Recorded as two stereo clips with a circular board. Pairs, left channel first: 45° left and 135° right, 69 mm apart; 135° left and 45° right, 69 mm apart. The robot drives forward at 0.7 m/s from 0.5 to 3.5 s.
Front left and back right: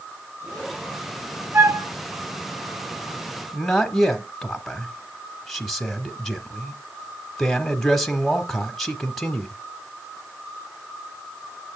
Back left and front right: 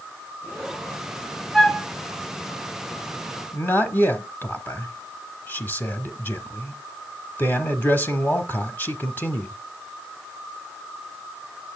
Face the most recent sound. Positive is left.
turn(degrees=130)